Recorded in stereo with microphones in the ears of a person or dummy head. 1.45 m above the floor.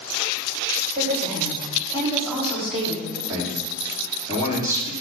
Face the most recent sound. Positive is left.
turn(degrees=-15)  # may be behind; listen again after turning